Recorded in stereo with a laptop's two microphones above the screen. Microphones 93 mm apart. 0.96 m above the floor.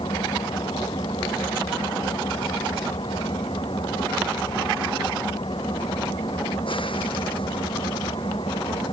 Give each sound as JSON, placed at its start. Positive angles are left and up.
{"t": 0.0, "sound": "an engine running", "side_deg": 65}